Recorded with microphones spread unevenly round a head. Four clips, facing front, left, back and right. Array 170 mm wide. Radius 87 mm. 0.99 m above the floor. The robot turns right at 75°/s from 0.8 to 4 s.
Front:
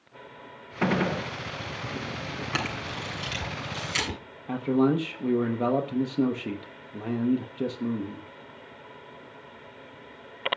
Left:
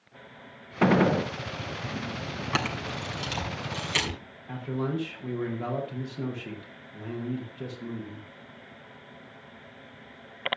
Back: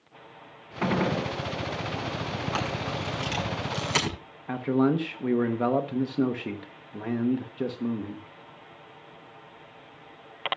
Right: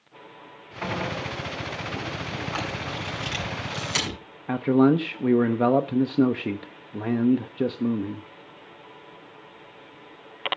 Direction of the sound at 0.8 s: 75° left.